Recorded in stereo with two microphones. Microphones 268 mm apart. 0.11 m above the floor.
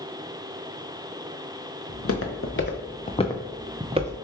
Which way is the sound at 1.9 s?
60° left (ahead or behind).